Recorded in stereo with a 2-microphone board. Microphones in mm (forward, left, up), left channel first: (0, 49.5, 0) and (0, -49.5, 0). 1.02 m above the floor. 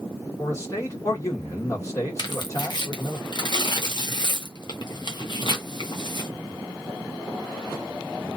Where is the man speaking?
35° left (ahead or behind), 1.5 m.